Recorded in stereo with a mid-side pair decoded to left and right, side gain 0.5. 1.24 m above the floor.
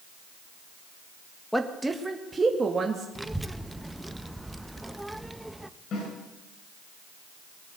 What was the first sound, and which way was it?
A woman speaking, straight ahead.